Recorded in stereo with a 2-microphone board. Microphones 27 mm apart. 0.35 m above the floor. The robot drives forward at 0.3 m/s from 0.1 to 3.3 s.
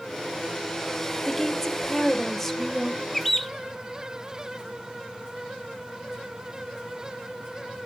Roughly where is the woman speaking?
Centre.